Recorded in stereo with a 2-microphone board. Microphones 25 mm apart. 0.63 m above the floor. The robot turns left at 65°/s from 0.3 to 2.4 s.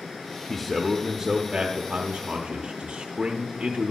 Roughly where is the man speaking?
Ahead left.